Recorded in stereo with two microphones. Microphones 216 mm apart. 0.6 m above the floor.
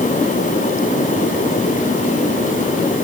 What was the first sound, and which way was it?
Only background noise.